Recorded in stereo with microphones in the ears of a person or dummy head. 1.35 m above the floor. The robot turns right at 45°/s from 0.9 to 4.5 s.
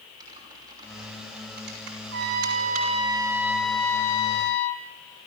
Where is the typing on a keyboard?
20° right (ahead or behind), 6 m; by 3.0 s 65° right (ahead or behind), 6 m.